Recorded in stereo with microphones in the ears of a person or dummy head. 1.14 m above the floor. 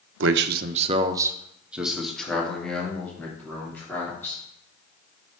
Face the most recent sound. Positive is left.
turn(degrees=15)  # may be behind; listen again after turning